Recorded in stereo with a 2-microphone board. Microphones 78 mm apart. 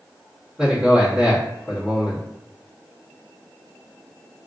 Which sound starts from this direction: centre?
A man speaking, at 0.6 s.